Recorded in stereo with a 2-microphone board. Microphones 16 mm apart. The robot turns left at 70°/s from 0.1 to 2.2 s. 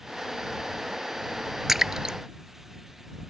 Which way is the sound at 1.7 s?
20° right (ahead or behind).